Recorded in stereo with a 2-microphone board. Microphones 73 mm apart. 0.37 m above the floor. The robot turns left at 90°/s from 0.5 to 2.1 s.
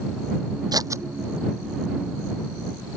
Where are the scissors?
65° right (ahead or behind); by 1.0 s 35° right (ahead or behind).